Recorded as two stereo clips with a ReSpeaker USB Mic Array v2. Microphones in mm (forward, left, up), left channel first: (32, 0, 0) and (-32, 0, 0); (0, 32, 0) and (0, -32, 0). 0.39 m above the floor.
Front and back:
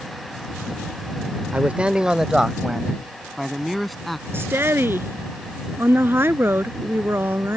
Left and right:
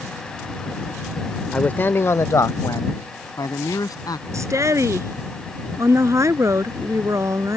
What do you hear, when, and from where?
1.5 s a man speaking: 145° left; by 4.2 s 90° left
4.3 s a woman speaking: 130° right